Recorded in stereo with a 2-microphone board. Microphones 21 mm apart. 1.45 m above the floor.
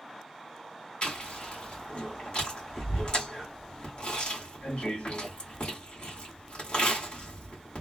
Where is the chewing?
55° left (ahead or behind), 1.7 m.